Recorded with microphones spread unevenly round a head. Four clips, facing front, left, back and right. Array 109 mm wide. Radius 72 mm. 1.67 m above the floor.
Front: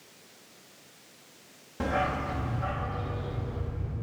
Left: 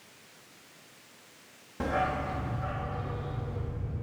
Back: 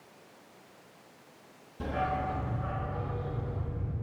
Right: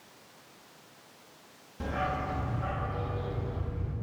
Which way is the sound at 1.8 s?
60° left.